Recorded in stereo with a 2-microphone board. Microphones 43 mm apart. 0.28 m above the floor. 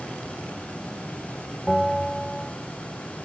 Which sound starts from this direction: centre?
A bell, at 1.7 s.